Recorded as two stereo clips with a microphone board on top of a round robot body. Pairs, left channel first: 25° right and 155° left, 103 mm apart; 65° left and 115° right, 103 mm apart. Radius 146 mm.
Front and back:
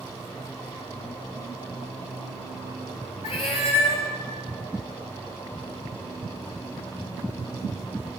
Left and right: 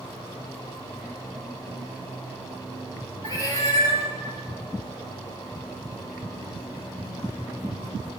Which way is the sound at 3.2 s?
10° left.